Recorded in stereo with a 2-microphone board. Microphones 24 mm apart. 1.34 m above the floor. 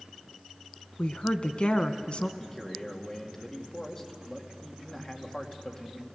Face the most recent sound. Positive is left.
turn(degrees=20)  # may be behind; listen again after turning